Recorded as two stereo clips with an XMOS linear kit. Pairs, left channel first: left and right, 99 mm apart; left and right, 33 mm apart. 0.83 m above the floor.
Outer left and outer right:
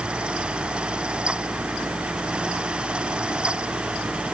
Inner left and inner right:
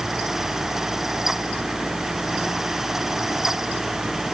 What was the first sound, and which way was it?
Only background noise.